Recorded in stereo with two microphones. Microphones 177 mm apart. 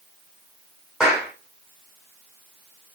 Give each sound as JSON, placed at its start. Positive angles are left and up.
{"t": 1.0, "sound": "a clap", "side_deg": -5, "distance_m": 4.0}